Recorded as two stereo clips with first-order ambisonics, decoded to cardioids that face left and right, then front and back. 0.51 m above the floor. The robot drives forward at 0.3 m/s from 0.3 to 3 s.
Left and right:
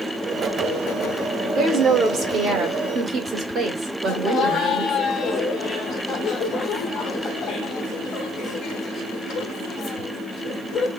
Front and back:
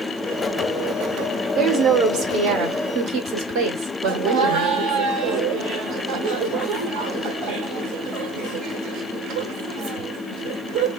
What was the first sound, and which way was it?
A woman speaking, 135° right.